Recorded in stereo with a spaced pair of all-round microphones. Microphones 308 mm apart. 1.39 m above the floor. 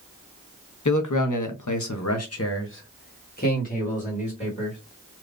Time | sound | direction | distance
0.8 | a man speaking | 70° left (ahead or behind) | 0.7 m